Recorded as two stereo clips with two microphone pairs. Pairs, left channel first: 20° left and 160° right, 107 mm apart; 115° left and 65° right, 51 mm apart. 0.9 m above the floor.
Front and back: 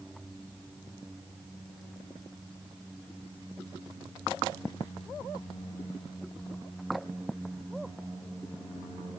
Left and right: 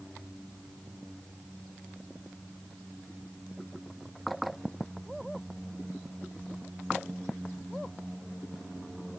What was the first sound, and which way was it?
Only background noise.